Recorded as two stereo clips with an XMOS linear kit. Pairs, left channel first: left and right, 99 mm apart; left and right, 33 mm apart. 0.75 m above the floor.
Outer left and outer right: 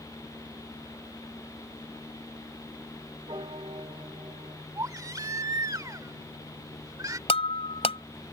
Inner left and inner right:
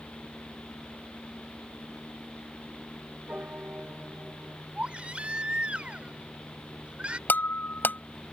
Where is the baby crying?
35° right (ahead or behind).